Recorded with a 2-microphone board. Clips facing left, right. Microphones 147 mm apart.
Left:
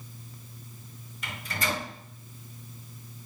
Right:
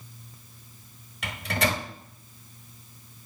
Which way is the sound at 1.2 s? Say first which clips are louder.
Right 5 dB; 75° right (ahead or behind).